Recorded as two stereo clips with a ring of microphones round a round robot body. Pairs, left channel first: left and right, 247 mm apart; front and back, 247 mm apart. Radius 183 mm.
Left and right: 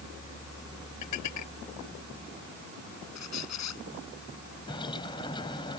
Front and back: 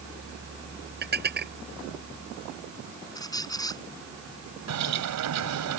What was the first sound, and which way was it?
Dishes clattering, 130° left.